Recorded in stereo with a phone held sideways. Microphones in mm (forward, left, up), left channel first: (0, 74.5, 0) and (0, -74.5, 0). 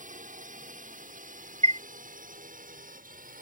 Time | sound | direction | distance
0.0 | a drone | 60° right (ahead or behind) | ?
1.6 | a chime | 50° right (ahead or behind) | ?